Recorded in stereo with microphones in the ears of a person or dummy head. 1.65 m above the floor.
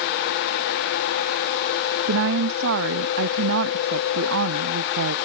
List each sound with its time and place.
2.1 s a woman speaking: 60° right (ahead or behind)